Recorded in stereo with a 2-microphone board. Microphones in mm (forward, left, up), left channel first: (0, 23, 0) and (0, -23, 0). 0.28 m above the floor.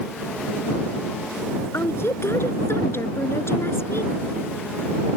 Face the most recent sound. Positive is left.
turn(degrees=65)  # may be behind; listen again after turning